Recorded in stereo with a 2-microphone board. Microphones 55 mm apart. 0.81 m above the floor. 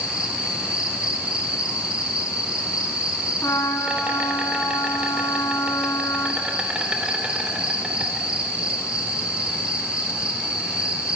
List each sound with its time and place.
0.0 s an insect: 20° right (ahead or behind), 3 m
3.4 s a trumpet: 70° left (ahead or behind), 3.5 m